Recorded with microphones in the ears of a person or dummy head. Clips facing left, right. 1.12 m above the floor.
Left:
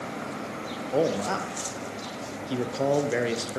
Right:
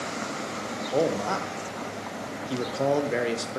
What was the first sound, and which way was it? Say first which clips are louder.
A man speaking: even; 5° left (ahead or behind).